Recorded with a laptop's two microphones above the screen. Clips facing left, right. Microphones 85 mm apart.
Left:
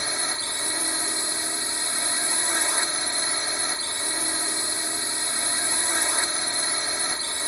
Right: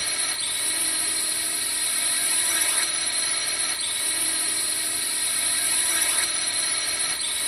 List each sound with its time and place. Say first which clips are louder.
0.0 s a drone: left 3 dB; 25° left (ahead or behind)